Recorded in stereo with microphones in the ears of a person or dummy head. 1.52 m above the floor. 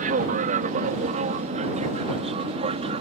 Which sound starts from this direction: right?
An aircraft, at 0.0 s.